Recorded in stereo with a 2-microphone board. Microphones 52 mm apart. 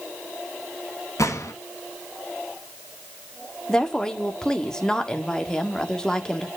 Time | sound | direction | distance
1.2 | a gunshot | 80° left | 2 m
3.7 | a woman speaking | 15° left (ahead or behind) | 1.7 m